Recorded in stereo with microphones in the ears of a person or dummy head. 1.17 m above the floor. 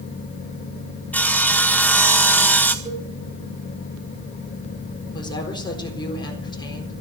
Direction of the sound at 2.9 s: 15° right (ahead or behind).